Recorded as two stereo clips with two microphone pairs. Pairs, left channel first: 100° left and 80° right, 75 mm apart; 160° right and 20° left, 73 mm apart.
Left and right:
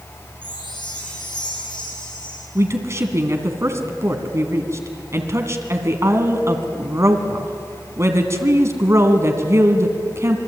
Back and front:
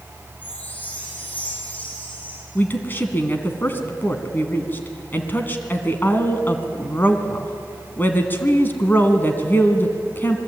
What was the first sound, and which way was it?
A chime, 130° left.